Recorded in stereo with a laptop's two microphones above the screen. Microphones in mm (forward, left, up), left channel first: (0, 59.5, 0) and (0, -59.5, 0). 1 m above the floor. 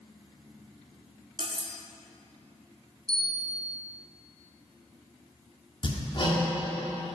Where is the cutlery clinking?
50° right (ahead or behind), 0.8 m.